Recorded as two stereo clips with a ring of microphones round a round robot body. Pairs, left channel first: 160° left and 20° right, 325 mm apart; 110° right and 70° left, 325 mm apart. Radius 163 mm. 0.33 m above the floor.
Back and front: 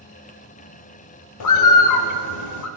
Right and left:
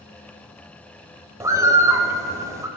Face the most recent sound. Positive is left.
turn(degrees=145)